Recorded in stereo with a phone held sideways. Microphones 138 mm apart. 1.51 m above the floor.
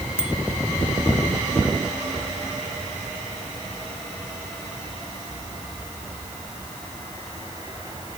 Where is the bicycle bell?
5° right (ahead or behind).